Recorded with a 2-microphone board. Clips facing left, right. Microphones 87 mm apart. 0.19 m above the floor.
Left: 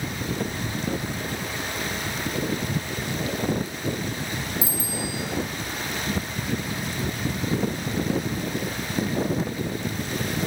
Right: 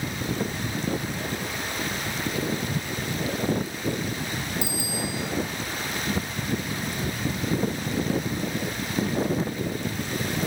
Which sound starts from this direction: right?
A bicycle bell, at 4.6 s.